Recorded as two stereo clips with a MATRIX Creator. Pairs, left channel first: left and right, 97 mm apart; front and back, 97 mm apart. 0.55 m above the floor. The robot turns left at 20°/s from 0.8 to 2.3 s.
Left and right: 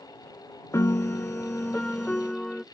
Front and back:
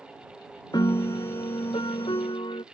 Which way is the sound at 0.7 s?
35° left.